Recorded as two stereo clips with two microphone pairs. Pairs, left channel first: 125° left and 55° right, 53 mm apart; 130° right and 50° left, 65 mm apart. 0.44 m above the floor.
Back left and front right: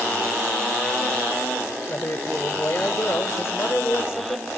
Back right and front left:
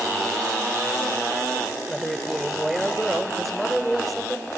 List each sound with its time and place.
1.9 s a man speaking: 135° left, 1.1 m